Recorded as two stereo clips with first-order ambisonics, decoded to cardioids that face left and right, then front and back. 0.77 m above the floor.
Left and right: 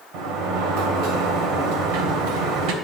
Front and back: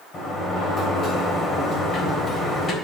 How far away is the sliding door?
About 3 m.